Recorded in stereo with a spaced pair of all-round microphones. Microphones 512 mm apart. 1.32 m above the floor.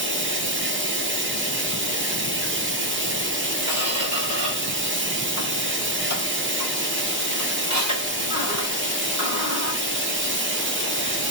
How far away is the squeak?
About 1.9 m.